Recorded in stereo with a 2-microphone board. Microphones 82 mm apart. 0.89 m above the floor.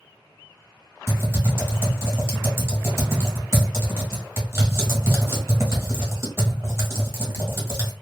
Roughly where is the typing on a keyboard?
Right.